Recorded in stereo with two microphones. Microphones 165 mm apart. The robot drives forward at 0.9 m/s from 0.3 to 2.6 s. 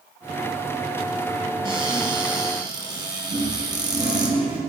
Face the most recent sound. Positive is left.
turn(degrees=-30)  # may be behind; listen again after turning